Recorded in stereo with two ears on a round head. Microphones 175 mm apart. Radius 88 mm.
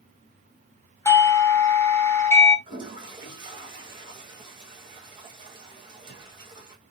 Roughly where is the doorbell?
Centre.